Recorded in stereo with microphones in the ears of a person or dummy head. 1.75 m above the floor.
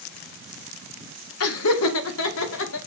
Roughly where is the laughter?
Left.